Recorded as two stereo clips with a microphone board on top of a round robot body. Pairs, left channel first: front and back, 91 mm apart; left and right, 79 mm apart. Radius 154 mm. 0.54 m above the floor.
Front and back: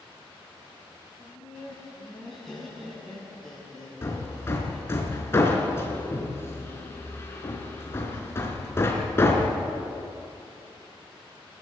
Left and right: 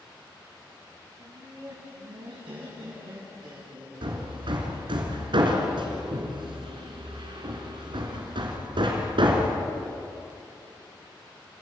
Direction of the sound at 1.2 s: 85° right.